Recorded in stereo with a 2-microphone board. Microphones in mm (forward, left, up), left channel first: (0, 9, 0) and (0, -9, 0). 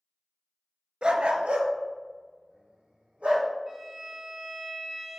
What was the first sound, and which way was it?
A dog barking, 50° right (ahead or behind).